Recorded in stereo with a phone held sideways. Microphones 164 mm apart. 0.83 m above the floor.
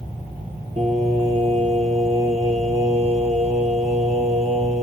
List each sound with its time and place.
0.8 s singing: 45° right (ahead or behind), 1.6 m